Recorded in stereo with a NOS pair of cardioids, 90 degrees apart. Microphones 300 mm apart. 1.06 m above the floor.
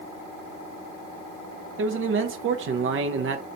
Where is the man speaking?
40° right, 0.6 m.